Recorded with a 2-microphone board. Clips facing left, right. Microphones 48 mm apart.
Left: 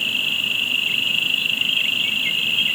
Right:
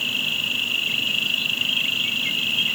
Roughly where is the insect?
Left.